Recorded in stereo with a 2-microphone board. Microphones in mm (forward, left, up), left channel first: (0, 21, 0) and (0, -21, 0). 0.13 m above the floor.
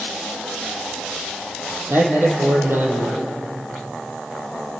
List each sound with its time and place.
1.9 s a man speaking: 65° right (ahead or behind), 4.5 m